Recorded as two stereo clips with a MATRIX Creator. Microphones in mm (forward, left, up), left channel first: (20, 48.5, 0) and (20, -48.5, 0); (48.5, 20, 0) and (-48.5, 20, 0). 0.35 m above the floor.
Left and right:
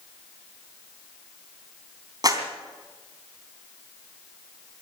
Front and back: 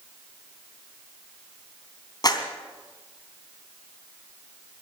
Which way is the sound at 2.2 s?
45° right.